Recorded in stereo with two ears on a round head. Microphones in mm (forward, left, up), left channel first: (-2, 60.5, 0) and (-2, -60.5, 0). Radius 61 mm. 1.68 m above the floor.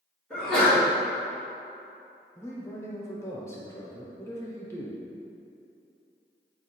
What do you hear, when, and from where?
0.3 s a sneeze: 5° left (ahead or behind), 1.7 m
2.4 s a man speaking: 20° left (ahead or behind), 0.7 m